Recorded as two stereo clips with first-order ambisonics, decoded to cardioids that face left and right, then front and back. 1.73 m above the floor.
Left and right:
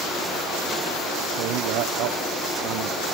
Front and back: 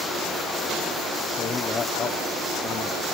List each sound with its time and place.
1.4 s a man speaking: 70° right